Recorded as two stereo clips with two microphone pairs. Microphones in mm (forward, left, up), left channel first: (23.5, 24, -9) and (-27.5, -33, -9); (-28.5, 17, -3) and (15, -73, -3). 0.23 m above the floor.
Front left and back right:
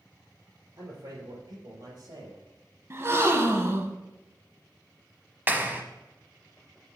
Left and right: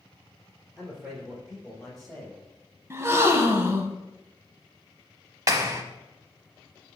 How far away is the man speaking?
About 4.5 m.